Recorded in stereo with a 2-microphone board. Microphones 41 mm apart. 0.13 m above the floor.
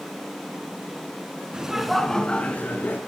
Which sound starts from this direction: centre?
Laughter, at 1.5 s.